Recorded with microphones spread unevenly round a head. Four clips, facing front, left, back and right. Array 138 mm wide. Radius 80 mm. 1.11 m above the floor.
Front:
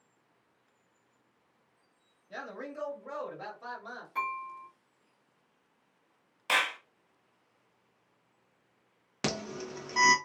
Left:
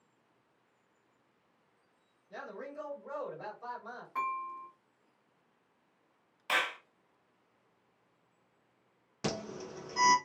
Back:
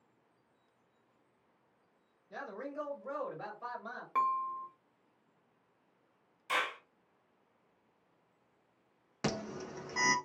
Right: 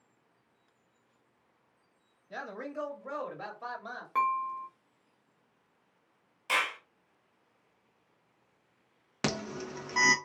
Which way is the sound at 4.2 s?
130° right.